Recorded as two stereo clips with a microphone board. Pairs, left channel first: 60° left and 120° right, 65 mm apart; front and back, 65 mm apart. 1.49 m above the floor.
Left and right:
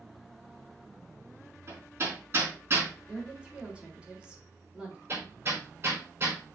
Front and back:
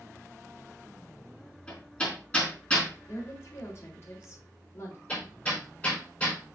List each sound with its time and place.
1.7 s hammering: 70° right, 4 m
3.1 s a woman speaking: 45° right, 3.5 m
5.1 s hammering: 70° right, 4.5 m